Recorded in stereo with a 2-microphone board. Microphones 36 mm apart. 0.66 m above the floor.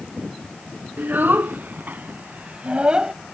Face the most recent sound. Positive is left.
turn(degrees=-20)  # may be behind; listen again after turning